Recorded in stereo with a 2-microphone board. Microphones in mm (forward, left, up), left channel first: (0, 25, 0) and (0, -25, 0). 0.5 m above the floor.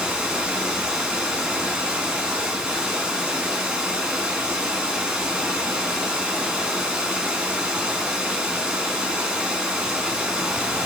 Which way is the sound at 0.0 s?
15° right (ahead or behind).